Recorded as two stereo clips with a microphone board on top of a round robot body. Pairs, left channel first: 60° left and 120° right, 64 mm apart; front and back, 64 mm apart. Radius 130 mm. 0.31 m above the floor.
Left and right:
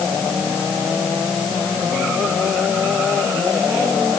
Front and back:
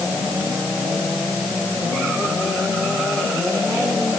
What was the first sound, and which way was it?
Only background noise.